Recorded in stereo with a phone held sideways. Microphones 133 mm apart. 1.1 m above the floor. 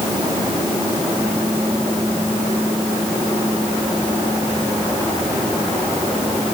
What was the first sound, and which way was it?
Only background noise.